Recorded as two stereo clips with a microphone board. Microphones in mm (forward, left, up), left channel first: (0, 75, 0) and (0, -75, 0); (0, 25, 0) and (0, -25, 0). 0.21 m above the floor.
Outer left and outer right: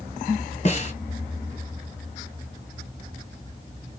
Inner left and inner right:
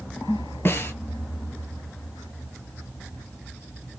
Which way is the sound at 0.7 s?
45° left (ahead or behind).